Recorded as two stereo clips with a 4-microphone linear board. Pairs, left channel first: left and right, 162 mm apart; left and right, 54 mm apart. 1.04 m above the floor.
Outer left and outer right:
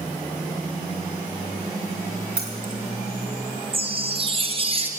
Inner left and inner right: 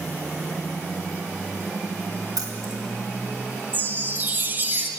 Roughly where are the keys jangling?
Right.